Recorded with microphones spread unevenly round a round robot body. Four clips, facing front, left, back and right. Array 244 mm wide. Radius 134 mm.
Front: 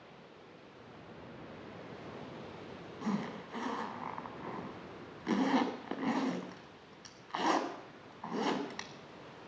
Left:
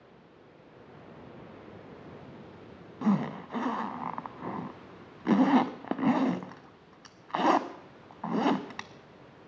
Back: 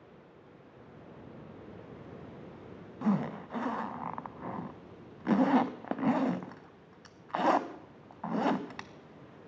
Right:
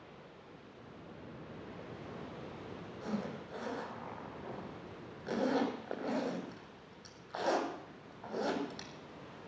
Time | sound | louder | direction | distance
3.0 | a zipper | left 12 dB, back 6 dB | 90° left | 0.6 m